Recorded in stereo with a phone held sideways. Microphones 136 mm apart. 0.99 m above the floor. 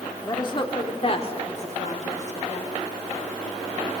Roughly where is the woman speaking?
Left.